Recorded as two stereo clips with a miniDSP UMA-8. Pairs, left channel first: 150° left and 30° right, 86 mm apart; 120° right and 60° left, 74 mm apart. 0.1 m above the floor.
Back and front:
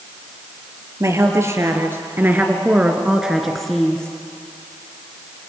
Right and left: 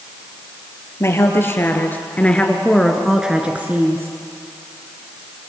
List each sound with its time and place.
1.0 s a woman speaking: 75° right, 2.5 m; by 4.2 s 80° left, 1.8 m